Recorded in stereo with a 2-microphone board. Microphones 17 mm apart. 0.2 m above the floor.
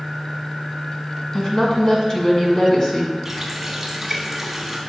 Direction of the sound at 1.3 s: 40° left (ahead or behind).